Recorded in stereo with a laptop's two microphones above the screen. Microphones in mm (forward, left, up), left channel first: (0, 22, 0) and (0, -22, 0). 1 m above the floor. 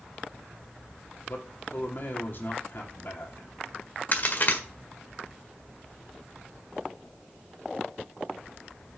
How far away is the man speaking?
About 2.5 m.